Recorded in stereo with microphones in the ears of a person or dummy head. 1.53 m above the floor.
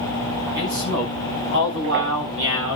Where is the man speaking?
55° right (ahead or behind), 9.5 m; by 2.8 s 65° right (ahead or behind), 7.5 m.